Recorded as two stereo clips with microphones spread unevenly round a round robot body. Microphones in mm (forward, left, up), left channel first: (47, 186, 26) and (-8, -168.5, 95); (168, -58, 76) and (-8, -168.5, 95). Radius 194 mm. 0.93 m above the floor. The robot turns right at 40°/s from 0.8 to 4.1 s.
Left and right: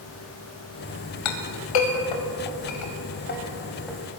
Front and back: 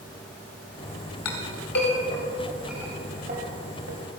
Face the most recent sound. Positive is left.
turn(degrees=180)